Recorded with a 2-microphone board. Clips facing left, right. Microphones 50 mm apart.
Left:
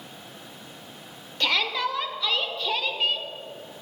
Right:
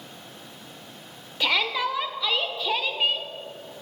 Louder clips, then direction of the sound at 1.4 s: Right 1 dB; 10° right (ahead or behind).